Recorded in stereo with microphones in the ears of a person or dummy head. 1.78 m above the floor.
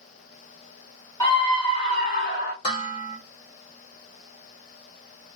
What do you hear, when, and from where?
1.2 s a scream: 20° left (ahead or behind), 1.2 m; by 2.5 s 55° left (ahead or behind), 2.5 m
2.6 s dishes clattering: 40° left (ahead or behind), 2 m